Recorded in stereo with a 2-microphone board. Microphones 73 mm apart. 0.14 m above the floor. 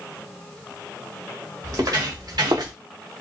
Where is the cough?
I don't hear a cough.